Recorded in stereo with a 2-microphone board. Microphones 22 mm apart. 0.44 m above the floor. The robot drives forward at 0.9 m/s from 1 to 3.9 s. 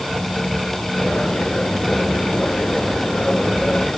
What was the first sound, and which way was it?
Only background noise.